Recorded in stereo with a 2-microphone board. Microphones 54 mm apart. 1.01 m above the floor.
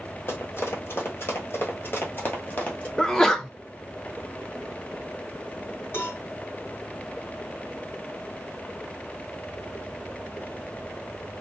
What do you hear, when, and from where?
0.3 s running footsteps: 45° left (ahead or behind), 1.6 m; by 2.9 s 25° left (ahead or behind), 1.4 m
3.0 s a sneeze: 10° left (ahead or behind), 0.7 m
5.9 s a cowbell: 50° left (ahead or behind), 1.8 m